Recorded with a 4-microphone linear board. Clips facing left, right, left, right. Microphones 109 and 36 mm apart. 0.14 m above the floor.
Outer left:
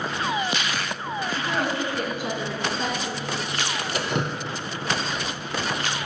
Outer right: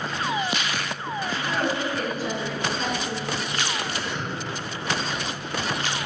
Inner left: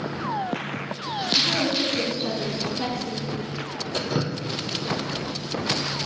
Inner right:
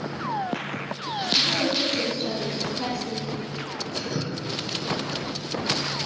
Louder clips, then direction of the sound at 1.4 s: Even, inner left 1 dB; 15° left (ahead or behind).